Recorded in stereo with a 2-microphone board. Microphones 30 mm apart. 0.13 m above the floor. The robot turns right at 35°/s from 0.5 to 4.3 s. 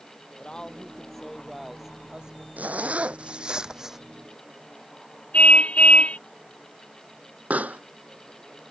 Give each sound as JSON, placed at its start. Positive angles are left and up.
{"t": 0.4, "sound": "a woman speaking", "azimuth_deg": 150}
{"t": 2.6, "sound": "a zipper", "azimuth_deg": -60}
{"t": 5.3, "sound": "a car horn", "side_deg": 55}
{"t": 7.5, "sound": "a pop", "side_deg": -60}